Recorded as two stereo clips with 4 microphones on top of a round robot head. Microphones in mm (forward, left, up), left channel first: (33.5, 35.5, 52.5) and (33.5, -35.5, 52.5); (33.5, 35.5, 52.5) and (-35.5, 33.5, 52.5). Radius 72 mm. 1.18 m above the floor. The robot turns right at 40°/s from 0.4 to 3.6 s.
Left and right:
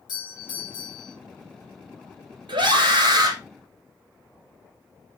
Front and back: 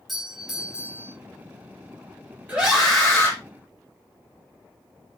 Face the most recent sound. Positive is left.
turn(degrees=-65)